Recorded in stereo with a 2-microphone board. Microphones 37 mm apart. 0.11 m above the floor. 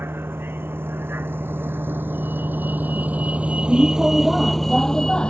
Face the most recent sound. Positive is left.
turn(degrees=25)  # may be behind; listen again after turning